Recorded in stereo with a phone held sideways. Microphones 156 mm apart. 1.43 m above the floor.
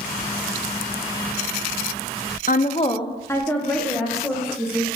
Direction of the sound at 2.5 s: 60° left (ahead or behind).